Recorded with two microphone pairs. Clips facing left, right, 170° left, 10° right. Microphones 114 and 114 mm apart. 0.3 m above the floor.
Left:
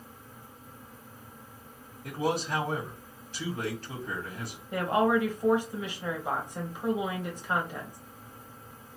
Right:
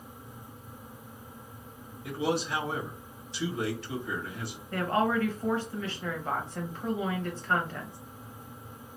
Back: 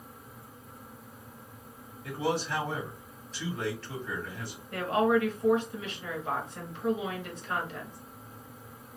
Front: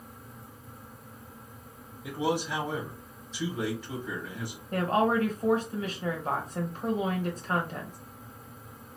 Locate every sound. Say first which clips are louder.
2.0 s a man speaking: even, front 1 dB; 65° left, 2 m
4.7 s a woman speaking: left 2 dB, even; 25° left, 1.2 m